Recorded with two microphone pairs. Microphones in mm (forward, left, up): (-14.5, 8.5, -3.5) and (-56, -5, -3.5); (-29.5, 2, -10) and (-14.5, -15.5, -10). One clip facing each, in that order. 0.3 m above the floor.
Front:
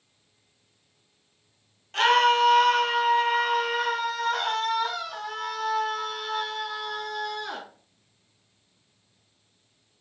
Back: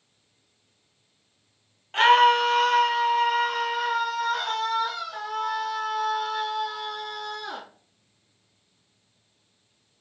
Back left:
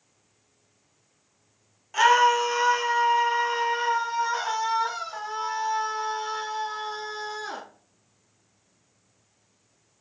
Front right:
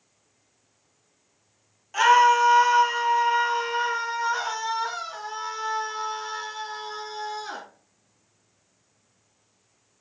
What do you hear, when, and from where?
1.9 s a scream: 140° right, 1.1 m; by 7.6 s 35° left, 3.5 m